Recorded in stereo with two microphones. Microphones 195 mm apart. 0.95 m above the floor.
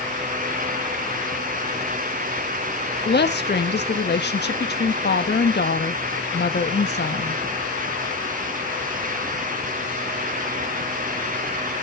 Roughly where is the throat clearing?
I don't hear throat clearing.